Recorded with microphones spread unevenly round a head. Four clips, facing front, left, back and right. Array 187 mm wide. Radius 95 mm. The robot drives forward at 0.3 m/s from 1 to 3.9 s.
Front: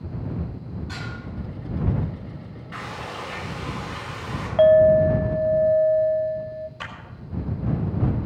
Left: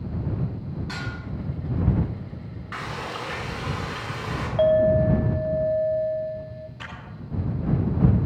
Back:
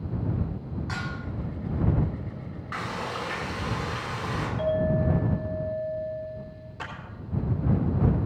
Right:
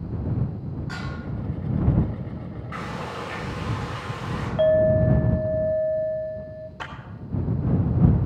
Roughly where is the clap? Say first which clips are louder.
Right 4 dB, front 1 dB; behind right.